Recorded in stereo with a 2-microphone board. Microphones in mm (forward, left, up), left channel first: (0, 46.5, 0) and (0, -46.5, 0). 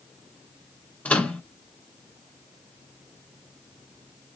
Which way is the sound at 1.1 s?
15° left (ahead or behind).